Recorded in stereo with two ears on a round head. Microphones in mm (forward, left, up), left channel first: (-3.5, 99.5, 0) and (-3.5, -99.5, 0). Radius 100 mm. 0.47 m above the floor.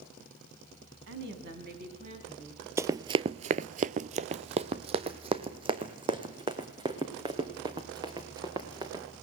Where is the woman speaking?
55° right (ahead or behind), 3 m; by 2.7 s 25° right (ahead or behind), 4 m.